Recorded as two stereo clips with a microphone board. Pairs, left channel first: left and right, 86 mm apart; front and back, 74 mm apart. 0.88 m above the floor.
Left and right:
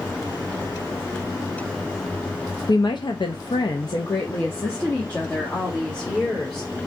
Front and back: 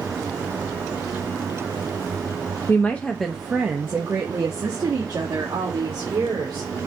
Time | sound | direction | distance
2.7 | a woman speaking | 60° left | 0.7 m